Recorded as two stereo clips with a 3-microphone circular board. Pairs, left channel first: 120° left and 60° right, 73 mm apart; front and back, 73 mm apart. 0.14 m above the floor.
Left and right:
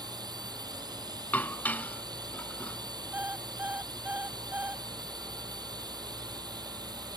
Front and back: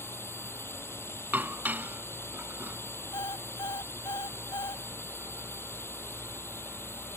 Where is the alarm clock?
5° left.